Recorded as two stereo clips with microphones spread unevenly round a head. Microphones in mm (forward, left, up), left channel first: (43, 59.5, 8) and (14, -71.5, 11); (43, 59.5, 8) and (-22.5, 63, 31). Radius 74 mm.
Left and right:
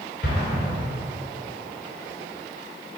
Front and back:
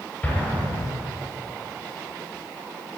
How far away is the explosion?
About 4.5 m.